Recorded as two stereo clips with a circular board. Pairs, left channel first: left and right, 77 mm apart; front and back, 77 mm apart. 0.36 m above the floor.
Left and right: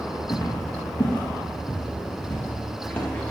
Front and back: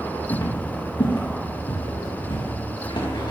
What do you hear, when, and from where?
0.3 s footsteps: 35° left, 2.0 m; by 3.3 s 15° left, 3.5 m